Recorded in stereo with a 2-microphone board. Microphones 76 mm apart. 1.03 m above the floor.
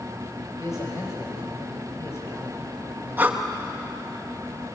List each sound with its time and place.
0.6 s a man speaking: 45° left (ahead or behind), 6.5 m; by 3.4 s 30° left (ahead or behind), 4.5 m
3.2 s breathing: 25° right (ahead or behind), 1.3 m